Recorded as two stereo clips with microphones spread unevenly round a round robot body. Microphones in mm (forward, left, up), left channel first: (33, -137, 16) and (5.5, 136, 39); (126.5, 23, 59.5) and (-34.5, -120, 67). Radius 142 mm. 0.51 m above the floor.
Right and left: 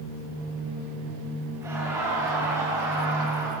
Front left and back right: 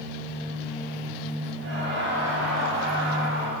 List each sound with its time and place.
1.6 s laughter: 175° left, 4 m